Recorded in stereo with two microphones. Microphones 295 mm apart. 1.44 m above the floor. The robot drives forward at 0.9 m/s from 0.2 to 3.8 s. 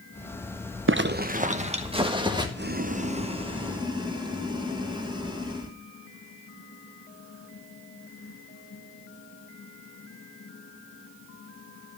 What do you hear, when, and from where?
0.9 s a zipper: 45° right (ahead or behind), 0.7 m; by 2.5 s 15° right (ahead or behind), 1.9 m
2.6 s boiling: 40° right (ahead or behind), 0.7 m; by 5.8 s 15° right (ahead or behind), 1.7 m